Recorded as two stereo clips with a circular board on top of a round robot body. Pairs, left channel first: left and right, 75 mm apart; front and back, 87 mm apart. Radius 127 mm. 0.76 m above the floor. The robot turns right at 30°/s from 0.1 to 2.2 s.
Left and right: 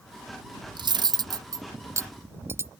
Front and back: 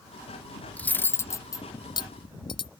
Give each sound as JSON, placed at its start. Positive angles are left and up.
{"t": 0.8, "sound": "cutlery clinking", "azimuth_deg": -75}